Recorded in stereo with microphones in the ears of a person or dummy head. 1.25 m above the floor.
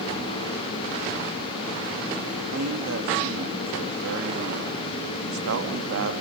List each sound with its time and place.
2.5 s a man speaking: 85° right, 1.7 m